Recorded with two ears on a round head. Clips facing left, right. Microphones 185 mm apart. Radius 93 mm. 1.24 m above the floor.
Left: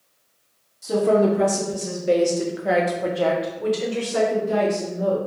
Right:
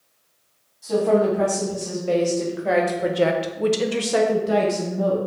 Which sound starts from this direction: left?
A woman speaking, at 0.8 s.